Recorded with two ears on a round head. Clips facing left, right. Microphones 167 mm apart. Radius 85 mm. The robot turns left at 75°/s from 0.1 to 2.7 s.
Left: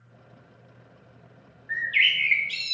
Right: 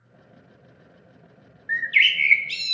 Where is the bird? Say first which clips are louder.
Right 3 dB; 85° right, 0.5 m; by 2.8 s 160° right, 0.5 m.